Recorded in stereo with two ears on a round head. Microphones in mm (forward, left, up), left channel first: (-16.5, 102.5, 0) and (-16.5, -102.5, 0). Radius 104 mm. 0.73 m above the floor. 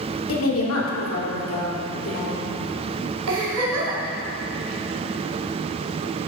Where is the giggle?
85° right, 3 m.